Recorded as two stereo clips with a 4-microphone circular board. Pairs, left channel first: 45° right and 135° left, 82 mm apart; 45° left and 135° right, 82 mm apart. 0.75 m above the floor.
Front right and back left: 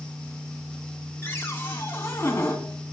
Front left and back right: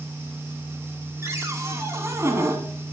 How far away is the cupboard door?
About 1.1 m.